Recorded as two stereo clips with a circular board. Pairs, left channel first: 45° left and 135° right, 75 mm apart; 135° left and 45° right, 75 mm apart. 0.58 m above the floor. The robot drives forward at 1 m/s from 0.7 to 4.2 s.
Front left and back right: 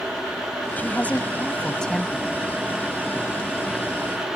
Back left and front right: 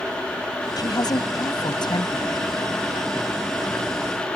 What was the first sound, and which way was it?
A woman speaking, 110° left.